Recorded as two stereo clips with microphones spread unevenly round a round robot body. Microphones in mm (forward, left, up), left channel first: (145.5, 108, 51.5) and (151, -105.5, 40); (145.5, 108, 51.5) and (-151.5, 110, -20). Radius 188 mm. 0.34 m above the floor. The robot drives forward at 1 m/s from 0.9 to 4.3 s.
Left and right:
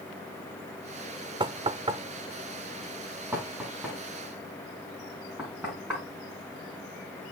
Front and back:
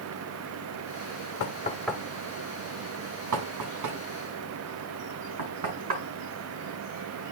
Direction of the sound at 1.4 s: 35° right.